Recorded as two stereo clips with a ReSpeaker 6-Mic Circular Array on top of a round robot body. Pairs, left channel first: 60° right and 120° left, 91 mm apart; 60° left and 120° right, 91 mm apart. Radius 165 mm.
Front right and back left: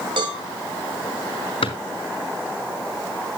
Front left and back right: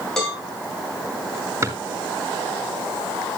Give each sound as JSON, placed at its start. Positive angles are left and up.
{"t": 0.2, "sound": "a cowbell", "azimuth_deg": 145, "distance_m": 5.0}
{"t": 1.6, "sound": "a drawer", "azimuth_deg": -65, "distance_m": 2.5}